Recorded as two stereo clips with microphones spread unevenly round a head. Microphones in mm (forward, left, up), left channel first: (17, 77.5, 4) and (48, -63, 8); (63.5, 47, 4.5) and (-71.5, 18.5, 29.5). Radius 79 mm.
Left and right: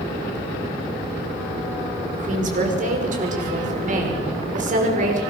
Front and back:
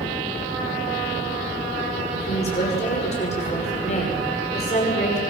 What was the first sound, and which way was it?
A woman speaking, 40° right.